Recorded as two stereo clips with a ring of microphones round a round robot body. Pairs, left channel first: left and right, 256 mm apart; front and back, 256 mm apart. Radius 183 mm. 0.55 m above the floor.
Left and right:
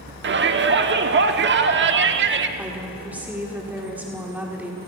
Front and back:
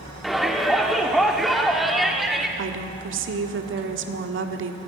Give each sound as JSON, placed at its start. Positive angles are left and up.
{"t": 0.2, "sound": "a shout", "azimuth_deg": -90, "distance_m": 1.1}
{"t": 2.6, "sound": "a woman speaking", "azimuth_deg": -175, "distance_m": 1.5}